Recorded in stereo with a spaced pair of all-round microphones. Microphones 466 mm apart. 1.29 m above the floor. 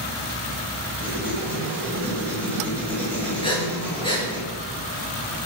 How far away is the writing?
About 7.5 m.